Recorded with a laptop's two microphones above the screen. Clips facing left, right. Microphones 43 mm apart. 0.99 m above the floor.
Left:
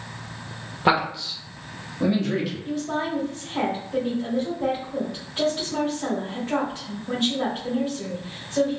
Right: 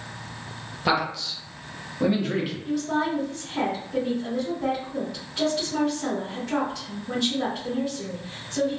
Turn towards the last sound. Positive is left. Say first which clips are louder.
# right 2 dB
turn(degrees=20)  # may be behind; listen again after turning